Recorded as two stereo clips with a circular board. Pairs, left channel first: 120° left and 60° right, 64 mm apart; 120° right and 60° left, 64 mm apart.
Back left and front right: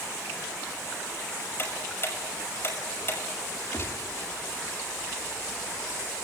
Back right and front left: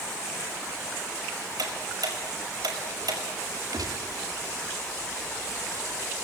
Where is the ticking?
65° left, 5.5 m.